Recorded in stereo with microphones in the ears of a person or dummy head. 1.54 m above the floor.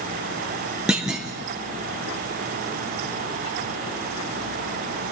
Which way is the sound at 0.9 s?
5° right (ahead or behind).